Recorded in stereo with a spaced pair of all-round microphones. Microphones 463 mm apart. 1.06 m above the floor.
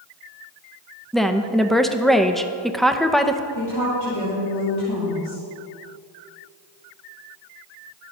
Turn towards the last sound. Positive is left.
turn(degrees=55)  # may be behind; listen again after turning